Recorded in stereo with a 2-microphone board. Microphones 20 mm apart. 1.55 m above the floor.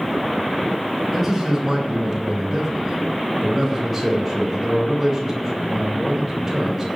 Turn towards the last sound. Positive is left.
turn(degrees=-10)  # may be behind; listen again after turning